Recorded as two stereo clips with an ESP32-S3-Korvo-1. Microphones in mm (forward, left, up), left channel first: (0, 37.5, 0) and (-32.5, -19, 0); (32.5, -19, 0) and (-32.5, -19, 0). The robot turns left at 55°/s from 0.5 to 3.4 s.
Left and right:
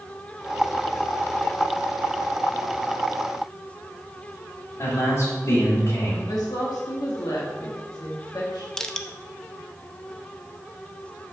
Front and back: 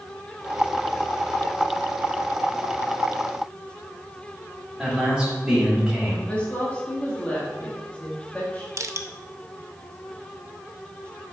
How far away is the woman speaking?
About 1.6 m.